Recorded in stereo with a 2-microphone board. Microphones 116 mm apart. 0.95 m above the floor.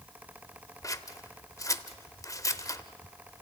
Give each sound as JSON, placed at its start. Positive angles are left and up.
{"t": 0.8, "sound": "scissors", "side_deg": 30, "distance_m": 0.8}